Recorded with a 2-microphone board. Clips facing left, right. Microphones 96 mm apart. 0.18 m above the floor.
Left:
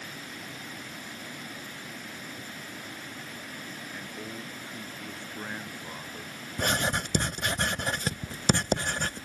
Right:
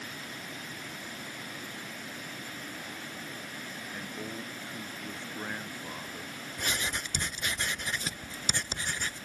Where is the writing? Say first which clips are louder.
Left 7 dB; 65° left (ahead or behind).